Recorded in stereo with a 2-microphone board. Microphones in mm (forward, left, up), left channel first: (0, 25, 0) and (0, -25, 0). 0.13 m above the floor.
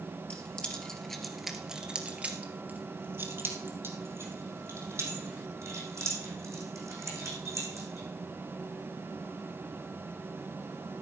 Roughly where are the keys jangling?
Left.